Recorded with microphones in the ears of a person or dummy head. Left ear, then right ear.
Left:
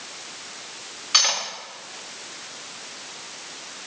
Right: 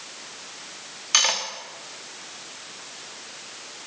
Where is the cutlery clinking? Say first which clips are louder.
Left 1 dB; 15° right (ahead or behind), 1.3 m.